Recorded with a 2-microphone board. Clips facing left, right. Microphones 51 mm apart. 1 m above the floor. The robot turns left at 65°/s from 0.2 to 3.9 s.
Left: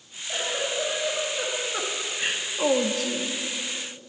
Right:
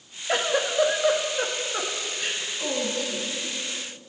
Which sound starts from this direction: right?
A giggle, at 0.3 s.